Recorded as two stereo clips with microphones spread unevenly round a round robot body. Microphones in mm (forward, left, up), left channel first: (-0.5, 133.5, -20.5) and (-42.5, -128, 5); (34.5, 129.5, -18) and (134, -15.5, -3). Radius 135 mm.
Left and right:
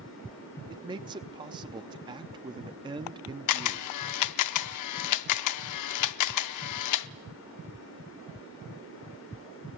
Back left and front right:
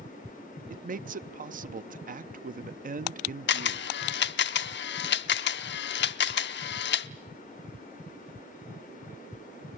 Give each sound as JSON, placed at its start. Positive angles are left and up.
{"t": 0.7, "sound": "a man speaking", "azimuth_deg": -25, "distance_m": 0.7}
{"t": 3.5, "sound": "a camera shutter", "azimuth_deg": 105, "distance_m": 0.6}